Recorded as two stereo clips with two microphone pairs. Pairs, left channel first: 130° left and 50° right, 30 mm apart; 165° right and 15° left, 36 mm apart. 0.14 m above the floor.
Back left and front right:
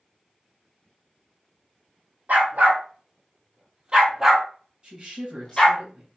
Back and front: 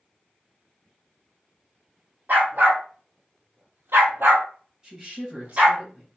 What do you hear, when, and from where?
2.3 s a dog barking: 25° right, 1.5 m; by 5.8 s 65° left, 1.3 m
4.8 s a woman speaking: 45° right, 1.6 m